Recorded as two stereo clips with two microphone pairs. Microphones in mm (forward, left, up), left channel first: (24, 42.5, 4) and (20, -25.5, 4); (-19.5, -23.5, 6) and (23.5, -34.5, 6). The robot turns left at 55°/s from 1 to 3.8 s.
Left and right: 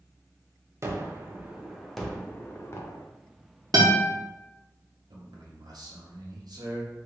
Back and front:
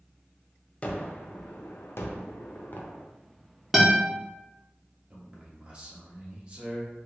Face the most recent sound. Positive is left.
turn(degrees=-80)